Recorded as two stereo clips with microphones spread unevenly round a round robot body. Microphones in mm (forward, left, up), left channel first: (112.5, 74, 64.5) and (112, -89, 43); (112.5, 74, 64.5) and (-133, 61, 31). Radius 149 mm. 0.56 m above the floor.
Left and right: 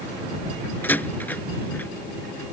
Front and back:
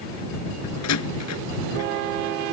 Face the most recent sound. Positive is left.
turn(degrees=10)